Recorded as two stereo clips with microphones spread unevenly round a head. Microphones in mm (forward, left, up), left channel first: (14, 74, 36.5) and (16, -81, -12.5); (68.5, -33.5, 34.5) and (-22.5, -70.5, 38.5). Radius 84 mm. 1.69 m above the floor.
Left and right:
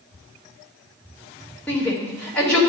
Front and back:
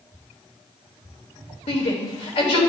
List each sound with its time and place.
1.7 s a shout: 10° left, 3 m